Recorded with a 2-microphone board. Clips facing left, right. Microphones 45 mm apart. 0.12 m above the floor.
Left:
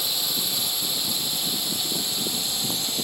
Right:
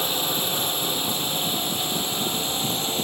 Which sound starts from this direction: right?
A drone, at 0.0 s.